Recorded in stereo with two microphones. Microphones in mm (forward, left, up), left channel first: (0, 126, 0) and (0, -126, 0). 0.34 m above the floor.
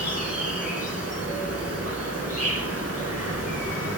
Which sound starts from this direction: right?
An insect, at 0.0 s.